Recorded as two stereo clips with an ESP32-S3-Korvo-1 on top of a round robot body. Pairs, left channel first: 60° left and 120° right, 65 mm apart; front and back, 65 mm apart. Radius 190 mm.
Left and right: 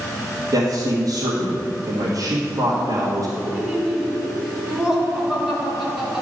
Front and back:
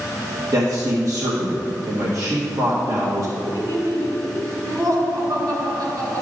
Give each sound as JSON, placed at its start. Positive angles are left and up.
{"t": 0.5, "sound": "a man speaking", "azimuth_deg": -150, "distance_m": 1.7}
{"t": 3.4, "sound": "laughter", "azimuth_deg": 155, "distance_m": 2.0}